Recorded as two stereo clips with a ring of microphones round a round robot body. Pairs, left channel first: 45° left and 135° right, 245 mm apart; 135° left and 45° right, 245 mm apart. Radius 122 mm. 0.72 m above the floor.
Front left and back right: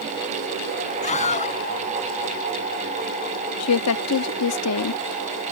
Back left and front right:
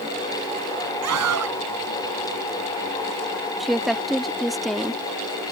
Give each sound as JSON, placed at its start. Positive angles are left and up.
{"t": 1.0, "sound": "a scream", "azimuth_deg": -20}
{"t": 3.6, "sound": "a woman speaking", "azimuth_deg": 45}